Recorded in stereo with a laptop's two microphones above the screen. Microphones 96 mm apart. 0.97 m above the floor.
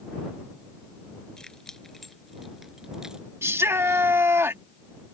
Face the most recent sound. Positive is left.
turn(degrees=-25)  # may be behind; listen again after turning